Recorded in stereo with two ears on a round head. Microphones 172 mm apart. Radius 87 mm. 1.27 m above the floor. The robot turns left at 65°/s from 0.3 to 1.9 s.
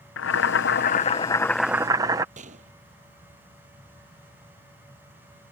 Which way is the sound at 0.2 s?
85° left.